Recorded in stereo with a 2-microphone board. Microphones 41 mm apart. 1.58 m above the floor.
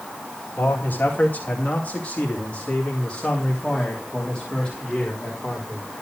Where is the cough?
I don't hear a cough.